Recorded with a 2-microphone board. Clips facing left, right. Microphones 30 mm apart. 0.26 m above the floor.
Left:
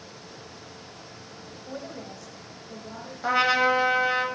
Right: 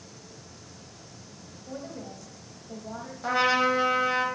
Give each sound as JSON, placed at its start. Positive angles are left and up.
{"t": 1.7, "sound": "a woman speaking", "side_deg": 25, "distance_m": 0.9}
{"t": 3.2, "sound": "a trumpet", "side_deg": 25, "distance_m": 1.0}